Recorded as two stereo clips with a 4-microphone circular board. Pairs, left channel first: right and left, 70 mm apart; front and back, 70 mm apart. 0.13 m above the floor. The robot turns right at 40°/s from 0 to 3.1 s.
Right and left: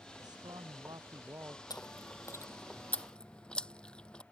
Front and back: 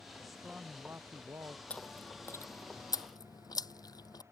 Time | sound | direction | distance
0.2 | a man speaking | 85° left | ?
1.7 | chewing | 70° right | ?